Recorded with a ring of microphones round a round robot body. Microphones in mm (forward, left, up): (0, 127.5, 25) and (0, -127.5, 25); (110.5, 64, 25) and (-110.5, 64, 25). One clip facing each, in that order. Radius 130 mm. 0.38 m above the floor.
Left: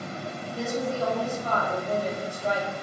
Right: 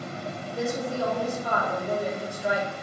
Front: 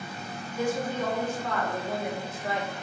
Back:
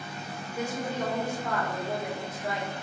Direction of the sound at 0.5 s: 165° right.